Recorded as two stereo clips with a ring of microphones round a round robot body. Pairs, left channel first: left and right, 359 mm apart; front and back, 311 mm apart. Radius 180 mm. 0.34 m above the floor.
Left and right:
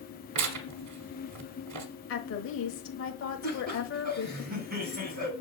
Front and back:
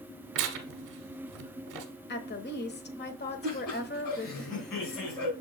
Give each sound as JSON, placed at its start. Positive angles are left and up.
{"t": 0.3, "sound": "tearing paper", "azimuth_deg": -140, "distance_m": 1.0}
{"t": 2.1, "sound": "a woman speaking", "azimuth_deg": 45, "distance_m": 1.2}
{"t": 3.4, "sound": "laughter", "azimuth_deg": -25, "distance_m": 3.5}